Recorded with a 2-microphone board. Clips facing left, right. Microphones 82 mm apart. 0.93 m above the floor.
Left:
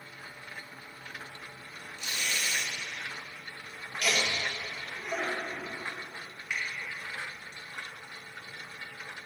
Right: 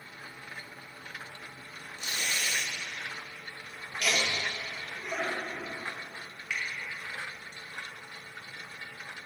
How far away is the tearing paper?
About 0.7 m.